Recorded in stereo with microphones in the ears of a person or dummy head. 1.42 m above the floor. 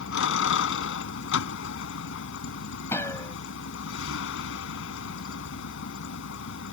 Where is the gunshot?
15° left (ahead or behind).